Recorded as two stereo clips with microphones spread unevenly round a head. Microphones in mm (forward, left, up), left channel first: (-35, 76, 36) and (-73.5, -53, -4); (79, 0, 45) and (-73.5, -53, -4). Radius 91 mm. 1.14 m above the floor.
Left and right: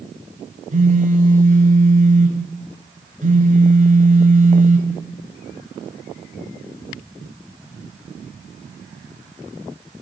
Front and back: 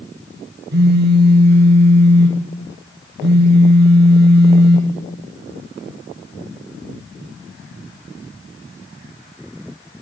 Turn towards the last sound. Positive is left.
turn(degrees=-140)